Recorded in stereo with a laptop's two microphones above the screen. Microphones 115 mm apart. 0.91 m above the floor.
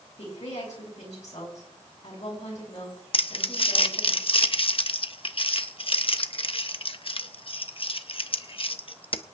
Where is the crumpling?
50° left (ahead or behind), 0.8 m.